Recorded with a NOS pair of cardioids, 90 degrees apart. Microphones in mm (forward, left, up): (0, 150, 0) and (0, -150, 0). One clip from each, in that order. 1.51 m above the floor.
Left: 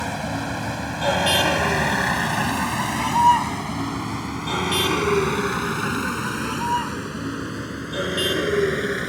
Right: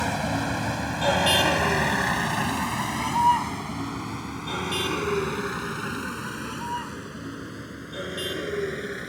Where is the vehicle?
5° right; by 9.1 s 60° left.